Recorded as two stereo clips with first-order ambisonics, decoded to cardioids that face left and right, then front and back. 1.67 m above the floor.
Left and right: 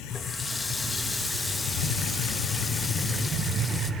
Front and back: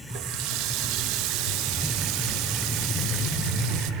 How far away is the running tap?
About 1.5 m.